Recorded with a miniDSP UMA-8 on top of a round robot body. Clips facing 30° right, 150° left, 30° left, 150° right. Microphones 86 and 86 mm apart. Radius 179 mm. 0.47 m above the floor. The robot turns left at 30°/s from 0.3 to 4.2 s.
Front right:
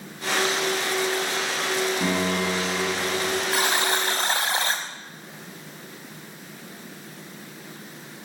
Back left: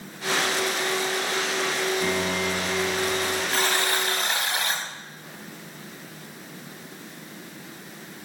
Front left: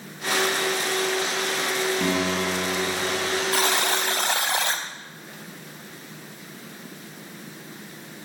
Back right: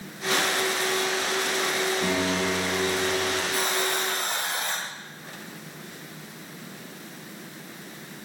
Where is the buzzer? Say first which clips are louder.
Even, front left 3 dB; 45° left, 0.5 m; by 4.8 s 25° left, 0.5 m.